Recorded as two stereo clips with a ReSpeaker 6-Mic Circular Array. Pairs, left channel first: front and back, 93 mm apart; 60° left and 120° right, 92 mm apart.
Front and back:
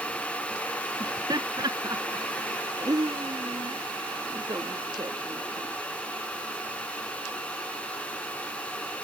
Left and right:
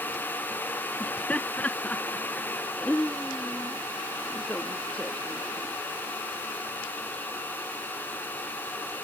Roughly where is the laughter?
Behind left.